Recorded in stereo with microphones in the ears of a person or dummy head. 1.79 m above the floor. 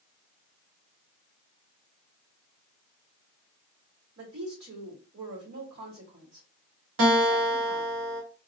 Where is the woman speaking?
80° right, 1.8 m.